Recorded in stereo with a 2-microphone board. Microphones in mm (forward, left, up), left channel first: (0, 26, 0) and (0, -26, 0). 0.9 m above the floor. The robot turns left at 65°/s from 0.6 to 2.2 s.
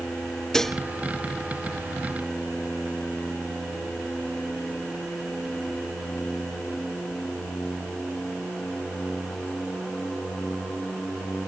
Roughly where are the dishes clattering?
Centre.